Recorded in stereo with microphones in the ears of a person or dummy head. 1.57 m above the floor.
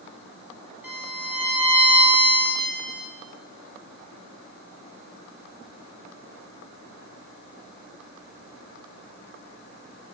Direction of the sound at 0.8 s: 10° right (ahead or behind).